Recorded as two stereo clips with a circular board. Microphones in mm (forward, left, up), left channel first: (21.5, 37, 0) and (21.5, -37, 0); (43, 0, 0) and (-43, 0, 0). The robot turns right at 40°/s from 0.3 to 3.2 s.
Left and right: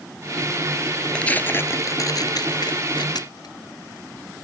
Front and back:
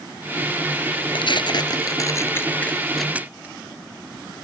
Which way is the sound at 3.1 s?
105° left.